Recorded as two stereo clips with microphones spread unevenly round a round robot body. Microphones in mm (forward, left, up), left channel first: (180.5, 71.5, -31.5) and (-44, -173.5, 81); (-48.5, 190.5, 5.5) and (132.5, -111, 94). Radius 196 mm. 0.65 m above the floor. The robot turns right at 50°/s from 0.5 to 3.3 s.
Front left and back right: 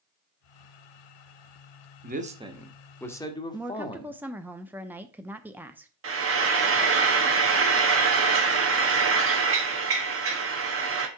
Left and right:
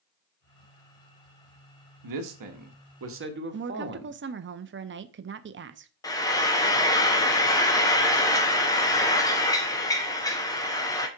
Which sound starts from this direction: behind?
Frying, at 6.0 s.